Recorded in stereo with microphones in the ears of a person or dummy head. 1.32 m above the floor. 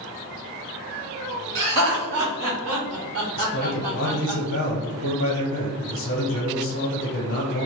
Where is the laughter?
70° right (ahead or behind), 1.5 m; by 4.4 s 5° right (ahead or behind), 0.8 m.